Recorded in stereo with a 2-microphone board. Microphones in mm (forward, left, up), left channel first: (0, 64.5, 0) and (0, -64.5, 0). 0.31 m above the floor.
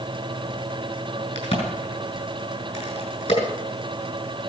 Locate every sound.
1.4 s a crack: 60° left (ahead or behind), 5 m